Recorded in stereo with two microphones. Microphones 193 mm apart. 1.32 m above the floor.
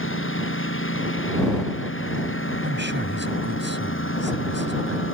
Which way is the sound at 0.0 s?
80° left.